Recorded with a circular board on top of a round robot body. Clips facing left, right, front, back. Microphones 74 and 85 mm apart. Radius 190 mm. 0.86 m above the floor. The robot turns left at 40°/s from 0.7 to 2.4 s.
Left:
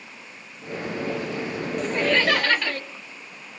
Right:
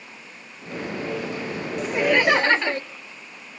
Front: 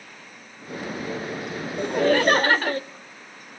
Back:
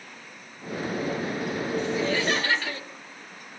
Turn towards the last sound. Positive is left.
turn(degrees=-30)